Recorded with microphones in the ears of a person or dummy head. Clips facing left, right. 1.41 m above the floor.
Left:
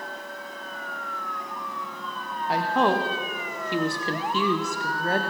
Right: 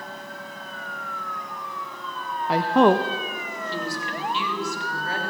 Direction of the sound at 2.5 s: 70° right (ahead or behind).